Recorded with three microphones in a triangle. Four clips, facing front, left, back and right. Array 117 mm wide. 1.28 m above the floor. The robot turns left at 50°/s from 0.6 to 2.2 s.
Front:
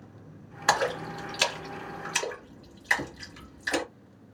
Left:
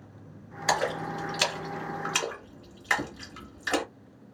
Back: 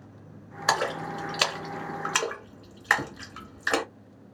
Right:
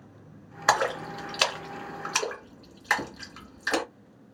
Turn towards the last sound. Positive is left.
turn(degrees=-160)